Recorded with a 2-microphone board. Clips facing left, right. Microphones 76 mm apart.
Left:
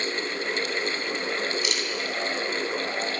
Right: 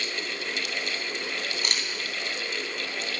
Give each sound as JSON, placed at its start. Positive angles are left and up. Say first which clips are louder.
{"t": 1.6, "sound": "a camera shutter", "louder": "left 3 dB", "side_deg": -45, "distance_m": 2.5}